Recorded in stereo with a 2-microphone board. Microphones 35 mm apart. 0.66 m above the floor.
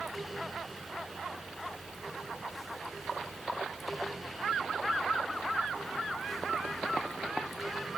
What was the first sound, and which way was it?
Only background noise.